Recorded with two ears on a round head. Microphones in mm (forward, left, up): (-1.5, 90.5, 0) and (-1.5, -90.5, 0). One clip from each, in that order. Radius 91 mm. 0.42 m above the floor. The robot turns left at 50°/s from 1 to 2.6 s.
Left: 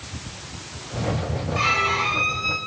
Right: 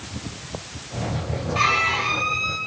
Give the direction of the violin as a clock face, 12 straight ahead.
5 o'clock.